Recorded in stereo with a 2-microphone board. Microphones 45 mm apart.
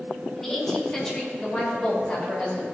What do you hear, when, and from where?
0.4 s a woman speaking: 10° left (ahead or behind), 2 m; by 2.6 s 25° left (ahead or behind), 3 m